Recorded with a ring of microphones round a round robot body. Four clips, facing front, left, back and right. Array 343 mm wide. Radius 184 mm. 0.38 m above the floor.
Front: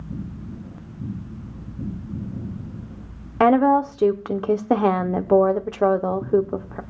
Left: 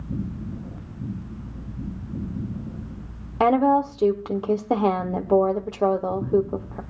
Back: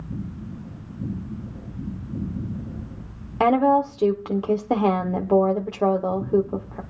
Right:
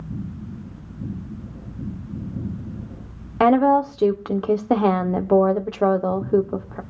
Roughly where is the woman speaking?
Ahead right.